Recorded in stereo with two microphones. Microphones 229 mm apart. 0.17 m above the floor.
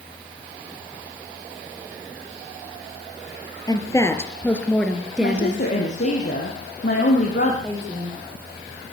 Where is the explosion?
I don't hear an explosion.